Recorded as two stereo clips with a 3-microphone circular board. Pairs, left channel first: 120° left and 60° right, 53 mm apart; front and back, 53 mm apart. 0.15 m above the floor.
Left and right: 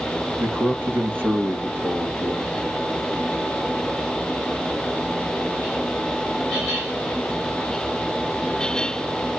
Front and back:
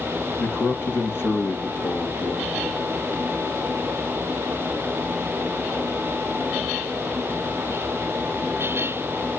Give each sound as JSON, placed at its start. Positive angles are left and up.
{"t": 0.4, "sound": "a man speaking", "azimuth_deg": -30, "distance_m": 2.5}